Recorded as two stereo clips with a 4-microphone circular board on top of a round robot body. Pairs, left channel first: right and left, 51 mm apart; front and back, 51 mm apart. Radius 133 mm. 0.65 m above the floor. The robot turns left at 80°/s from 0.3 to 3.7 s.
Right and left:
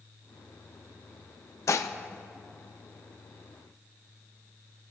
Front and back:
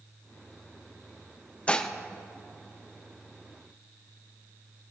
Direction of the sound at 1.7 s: 65° right.